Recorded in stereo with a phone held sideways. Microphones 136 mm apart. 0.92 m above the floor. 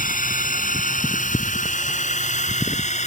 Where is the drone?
80° left; by 3.1 s 55° left (ahead or behind).